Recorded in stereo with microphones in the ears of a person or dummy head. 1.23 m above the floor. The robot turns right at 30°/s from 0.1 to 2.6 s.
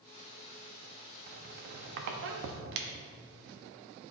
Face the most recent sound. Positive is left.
turn(degrees=-65)  # may be behind; listen again after turning